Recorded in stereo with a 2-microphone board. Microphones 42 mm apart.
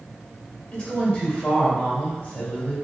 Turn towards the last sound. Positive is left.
turn(degrees=30)  # may be behind; listen again after turning